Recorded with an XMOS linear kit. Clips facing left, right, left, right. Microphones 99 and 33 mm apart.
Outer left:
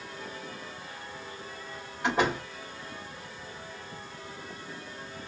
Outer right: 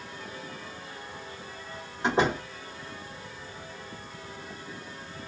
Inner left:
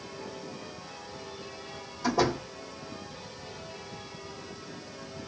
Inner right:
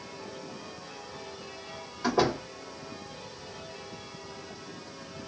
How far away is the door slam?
About 2.5 m.